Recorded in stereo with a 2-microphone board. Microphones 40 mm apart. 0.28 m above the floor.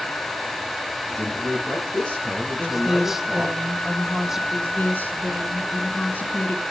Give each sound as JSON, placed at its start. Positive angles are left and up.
{"t": 1.1, "sound": "a man speaking", "side_deg": 25, "distance_m": 7.5}
{"t": 2.6, "sound": "a woman speaking", "side_deg": -10, "distance_m": 1.6}
{"t": 4.5, "sound": "a woman speaking", "side_deg": 50, "distance_m": 2.5}